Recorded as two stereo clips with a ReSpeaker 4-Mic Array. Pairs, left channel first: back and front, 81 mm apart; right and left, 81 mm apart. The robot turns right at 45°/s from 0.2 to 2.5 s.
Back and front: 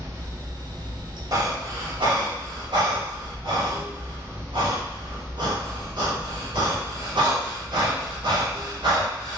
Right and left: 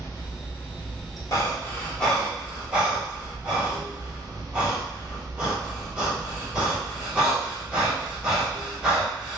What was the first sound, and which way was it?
Running water, 45° right.